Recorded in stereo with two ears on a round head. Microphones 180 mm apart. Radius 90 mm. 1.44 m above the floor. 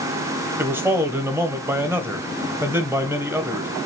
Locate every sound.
0.6 s a man speaking: 10° right (ahead or behind), 1.0 m